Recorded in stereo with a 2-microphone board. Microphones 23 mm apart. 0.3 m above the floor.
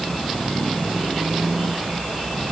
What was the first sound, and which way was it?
Only background noise.